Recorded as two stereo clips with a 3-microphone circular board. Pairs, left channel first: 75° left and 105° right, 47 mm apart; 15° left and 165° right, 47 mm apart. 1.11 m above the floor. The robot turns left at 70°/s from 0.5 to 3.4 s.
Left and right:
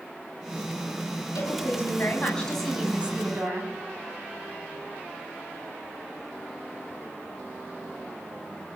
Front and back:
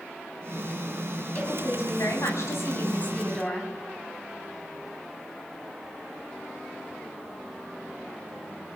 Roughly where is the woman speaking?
Left.